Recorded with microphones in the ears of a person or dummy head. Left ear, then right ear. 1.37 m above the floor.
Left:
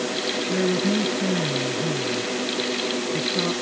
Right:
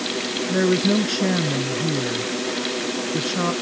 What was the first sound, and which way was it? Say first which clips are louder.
A woman speaking: right 5 dB; 85° right.